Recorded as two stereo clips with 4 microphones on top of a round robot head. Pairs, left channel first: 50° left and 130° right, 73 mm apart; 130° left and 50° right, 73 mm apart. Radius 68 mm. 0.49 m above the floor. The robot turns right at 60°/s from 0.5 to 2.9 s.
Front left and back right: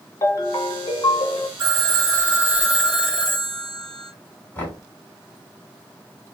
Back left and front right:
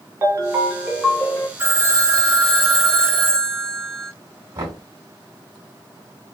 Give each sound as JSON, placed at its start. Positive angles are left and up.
{"t": 0.2, "sound": "a ringtone", "azimuth_deg": 5, "distance_m": 1.0}
{"t": 1.6, "sound": "a phone ringing", "azimuth_deg": -120, "distance_m": 2.0}
{"t": 4.5, "sound": "knocking", "azimuth_deg": -15, "distance_m": 2.0}